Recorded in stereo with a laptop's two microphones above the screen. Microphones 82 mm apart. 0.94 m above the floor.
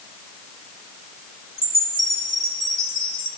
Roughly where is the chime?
Right.